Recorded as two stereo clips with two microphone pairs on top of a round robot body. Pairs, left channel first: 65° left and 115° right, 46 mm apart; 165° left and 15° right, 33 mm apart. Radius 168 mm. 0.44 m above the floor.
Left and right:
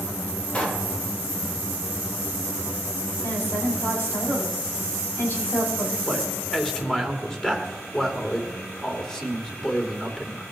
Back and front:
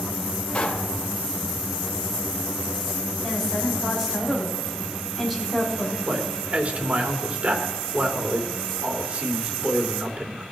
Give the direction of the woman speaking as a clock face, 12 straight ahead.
10 o'clock.